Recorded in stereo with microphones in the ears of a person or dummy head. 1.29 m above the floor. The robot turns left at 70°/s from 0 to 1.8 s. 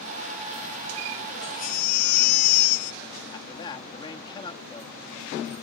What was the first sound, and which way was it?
A baby crying, 25° left (ahead or behind).